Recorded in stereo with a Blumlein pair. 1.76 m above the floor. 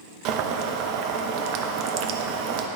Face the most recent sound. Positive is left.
turn(degrees=-40)